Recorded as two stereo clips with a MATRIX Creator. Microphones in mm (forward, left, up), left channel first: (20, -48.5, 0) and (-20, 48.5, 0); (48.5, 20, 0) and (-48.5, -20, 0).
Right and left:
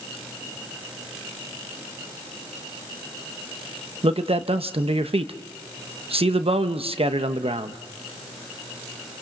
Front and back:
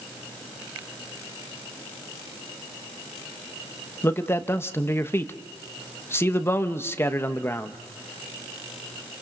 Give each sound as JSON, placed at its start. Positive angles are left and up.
{"t": 4.0, "sound": "a man speaking", "azimuth_deg": 90, "distance_m": 0.9}